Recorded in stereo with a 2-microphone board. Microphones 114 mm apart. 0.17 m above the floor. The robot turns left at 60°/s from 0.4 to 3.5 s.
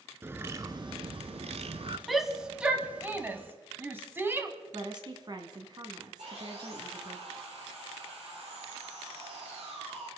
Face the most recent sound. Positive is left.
turn(degrees=-65)  # may be behind; listen again after turning